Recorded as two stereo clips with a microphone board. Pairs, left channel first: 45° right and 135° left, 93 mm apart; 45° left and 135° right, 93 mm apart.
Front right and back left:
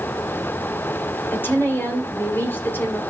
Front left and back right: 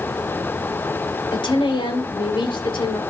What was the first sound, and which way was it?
A woman speaking, 25° left.